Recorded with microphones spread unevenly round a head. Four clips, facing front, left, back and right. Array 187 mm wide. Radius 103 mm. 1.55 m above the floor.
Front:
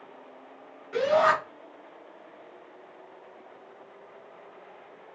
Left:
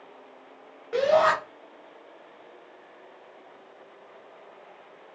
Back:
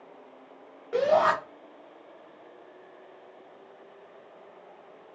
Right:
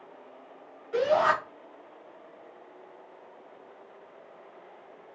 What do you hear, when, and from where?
0.9 s a shout: 140° left, 1.8 m